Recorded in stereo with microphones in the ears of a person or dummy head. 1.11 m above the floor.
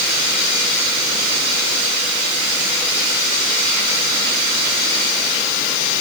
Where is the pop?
No pop in this recording.